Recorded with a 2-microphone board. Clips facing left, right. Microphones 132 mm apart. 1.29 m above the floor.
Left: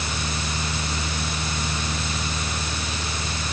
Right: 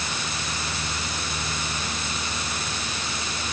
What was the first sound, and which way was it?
Only background noise.